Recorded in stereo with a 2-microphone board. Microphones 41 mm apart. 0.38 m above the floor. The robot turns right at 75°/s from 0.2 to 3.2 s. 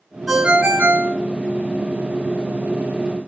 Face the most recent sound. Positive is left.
turn(degrees=45)